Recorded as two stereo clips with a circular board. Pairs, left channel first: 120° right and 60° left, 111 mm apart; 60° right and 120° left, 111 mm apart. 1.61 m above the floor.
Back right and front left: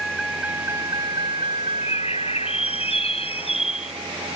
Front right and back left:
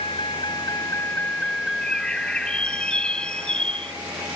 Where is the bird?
140° right.